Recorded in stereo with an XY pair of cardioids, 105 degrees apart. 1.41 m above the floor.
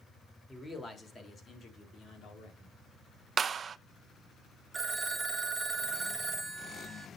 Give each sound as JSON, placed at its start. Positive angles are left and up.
{"t": 0.5, "sound": "a man speaking", "azimuth_deg": 15, "distance_m": 3.5}
{"t": 3.4, "sound": "a clap", "azimuth_deg": -45, "distance_m": 0.7}
{"t": 4.7, "sound": "a phone ringing", "azimuth_deg": -20, "distance_m": 1.4}